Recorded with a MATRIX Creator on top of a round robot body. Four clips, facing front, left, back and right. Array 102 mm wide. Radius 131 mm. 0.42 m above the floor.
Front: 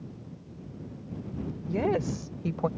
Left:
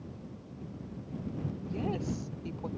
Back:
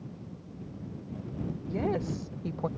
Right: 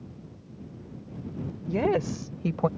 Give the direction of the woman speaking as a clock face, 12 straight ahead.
3 o'clock.